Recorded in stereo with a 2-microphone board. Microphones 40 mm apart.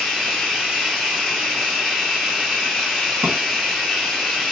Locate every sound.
0.0 s running water: 5° left (ahead or behind), 1.3 m
3.2 s a drawer: 65° right (ahead or behind), 1.5 m